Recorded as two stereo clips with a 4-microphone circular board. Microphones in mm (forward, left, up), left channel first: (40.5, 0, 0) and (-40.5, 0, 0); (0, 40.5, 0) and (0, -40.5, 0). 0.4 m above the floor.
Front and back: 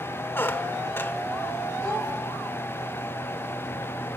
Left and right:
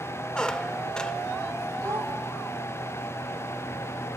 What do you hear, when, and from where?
0.3 s a squeak: 20° left, 0.7 m
1.8 s a child speaking: 50° right, 9.5 m